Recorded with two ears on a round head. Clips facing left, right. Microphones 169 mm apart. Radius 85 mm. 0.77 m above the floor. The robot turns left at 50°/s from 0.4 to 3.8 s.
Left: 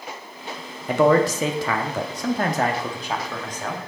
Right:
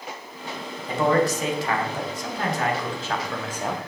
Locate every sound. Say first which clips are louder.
0.9 s a man speaking: left 4 dB; 125° left, 0.9 m; by 3.8 s 20° right, 0.9 m